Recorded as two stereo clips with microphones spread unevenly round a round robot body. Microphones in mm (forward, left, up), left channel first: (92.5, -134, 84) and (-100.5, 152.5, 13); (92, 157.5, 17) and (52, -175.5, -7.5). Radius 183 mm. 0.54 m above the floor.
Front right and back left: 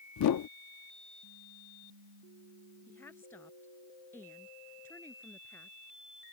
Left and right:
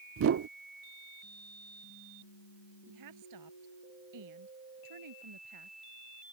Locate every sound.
0.2 s a whoosh: 90° right
2.9 s a woman speaking: 140° right